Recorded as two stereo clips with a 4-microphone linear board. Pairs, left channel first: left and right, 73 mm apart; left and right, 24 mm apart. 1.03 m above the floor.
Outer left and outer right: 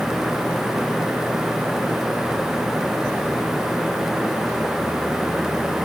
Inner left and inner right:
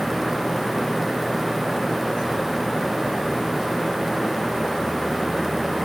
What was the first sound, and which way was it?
Only background noise.